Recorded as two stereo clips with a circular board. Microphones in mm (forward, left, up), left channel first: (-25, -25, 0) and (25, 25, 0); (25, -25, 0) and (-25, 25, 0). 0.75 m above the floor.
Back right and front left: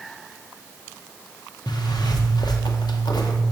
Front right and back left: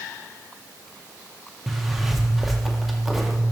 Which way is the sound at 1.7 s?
140° right.